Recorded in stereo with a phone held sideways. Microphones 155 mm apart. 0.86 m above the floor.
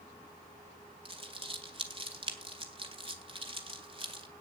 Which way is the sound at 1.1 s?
35° right (ahead or behind).